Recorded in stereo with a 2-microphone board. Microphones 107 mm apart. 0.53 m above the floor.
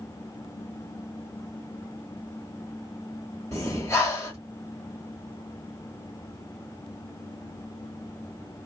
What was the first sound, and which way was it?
Breathing, 25° left (ahead or behind).